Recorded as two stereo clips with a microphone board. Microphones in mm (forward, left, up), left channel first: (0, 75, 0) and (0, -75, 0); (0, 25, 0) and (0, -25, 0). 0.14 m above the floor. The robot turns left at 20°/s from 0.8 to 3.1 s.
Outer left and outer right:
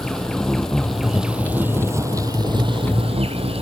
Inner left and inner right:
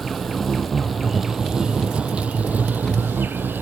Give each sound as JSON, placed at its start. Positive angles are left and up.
{"t": 0.0, "sound": "an insect", "azimuth_deg": 5}